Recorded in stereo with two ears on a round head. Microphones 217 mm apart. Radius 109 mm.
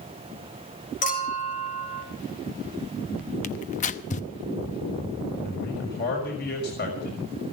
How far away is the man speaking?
About 6 m.